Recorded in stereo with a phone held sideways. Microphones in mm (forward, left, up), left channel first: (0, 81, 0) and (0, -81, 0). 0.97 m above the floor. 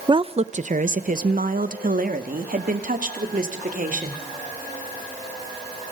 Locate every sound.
0.1 s a woman speaking: 30° right (ahead or behind), 0.7 m; by 4.2 s 60° right (ahead or behind), 3.5 m